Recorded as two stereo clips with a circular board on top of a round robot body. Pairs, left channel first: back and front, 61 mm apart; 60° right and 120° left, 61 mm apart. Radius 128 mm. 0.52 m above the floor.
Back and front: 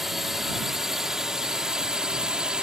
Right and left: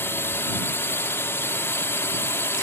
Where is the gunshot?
No gunshot in this recording.